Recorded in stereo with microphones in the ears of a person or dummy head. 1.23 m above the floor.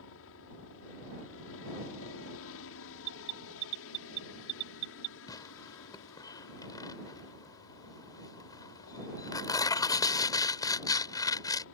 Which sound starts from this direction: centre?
Tearing paper, at 5.3 s.